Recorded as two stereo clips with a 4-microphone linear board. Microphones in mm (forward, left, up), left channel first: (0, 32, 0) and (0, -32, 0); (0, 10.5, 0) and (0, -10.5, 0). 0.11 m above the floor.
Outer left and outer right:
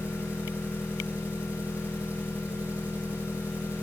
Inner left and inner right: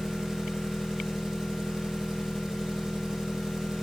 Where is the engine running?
25° right (ahead or behind), 3 m.